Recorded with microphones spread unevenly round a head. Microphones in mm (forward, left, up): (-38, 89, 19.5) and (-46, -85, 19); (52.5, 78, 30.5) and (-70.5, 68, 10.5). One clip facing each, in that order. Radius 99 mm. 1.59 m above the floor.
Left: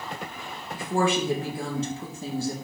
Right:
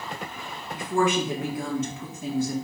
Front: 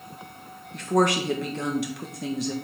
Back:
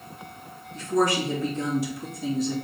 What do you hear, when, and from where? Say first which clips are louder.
0.7 s a woman speaking: right 1 dB, front 1 dB; 20° left, 1.4 m